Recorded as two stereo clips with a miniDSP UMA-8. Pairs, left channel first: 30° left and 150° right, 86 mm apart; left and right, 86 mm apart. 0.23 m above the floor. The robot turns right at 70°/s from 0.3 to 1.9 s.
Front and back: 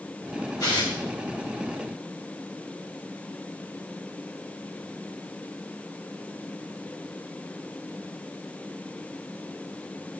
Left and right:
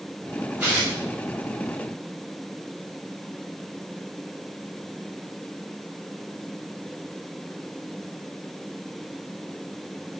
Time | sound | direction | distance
0.6 | tearing paper | 15° right | 3.5 m